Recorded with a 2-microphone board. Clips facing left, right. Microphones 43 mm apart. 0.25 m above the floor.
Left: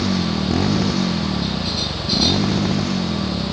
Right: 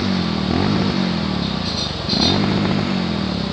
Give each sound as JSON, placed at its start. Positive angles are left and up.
{"t": 0.0, "sound": "a motorcycle", "side_deg": -10}